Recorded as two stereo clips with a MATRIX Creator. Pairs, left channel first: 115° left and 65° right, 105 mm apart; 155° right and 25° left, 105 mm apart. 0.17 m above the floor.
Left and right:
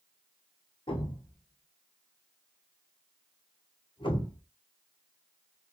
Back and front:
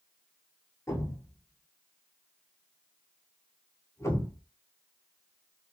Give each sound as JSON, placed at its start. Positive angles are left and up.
{"t": 0.9, "sound": "a thud", "azimuth_deg": 140, "distance_m": 0.9}